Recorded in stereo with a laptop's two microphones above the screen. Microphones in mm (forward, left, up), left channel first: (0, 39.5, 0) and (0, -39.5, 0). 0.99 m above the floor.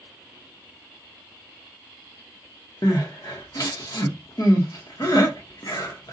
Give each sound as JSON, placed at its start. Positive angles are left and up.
{"t": 2.8, "sound": "crying", "side_deg": 50, "distance_m": 0.7}